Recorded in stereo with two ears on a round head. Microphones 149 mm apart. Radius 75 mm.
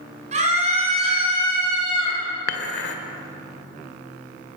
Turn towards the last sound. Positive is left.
turn(degrees=70)  # may be behind; listen again after turning